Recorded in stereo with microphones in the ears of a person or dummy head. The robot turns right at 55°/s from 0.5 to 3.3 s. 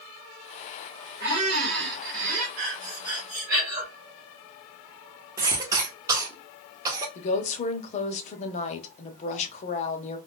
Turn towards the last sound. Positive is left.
turn(degrees=45)  # may be behind; listen again after turning